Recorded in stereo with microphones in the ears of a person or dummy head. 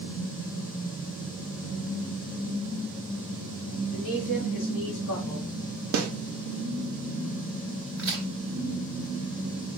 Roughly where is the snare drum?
Right.